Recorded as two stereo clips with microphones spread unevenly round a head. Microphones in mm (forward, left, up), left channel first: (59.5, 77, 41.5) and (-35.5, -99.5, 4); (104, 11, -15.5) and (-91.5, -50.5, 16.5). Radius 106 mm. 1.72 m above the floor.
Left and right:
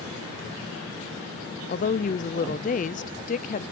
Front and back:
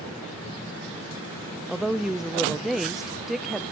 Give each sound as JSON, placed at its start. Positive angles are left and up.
{"t": 1.7, "sound": "a woman speaking", "azimuth_deg": 110, "distance_m": 0.5}